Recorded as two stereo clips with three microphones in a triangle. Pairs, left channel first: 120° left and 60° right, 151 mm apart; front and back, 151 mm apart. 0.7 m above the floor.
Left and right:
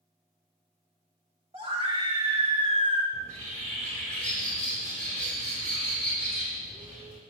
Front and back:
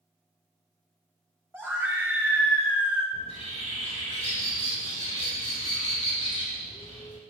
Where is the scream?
105° right, 3 m.